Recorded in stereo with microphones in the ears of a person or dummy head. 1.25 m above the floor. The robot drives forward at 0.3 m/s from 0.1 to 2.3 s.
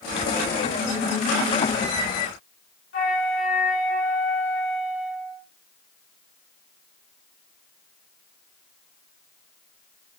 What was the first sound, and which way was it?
A flute, 75° left (ahead or behind).